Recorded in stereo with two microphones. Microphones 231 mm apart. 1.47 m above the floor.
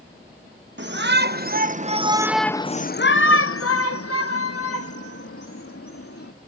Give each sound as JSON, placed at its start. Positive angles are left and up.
{"t": 0.8, "sound": "a shout", "side_deg": -50}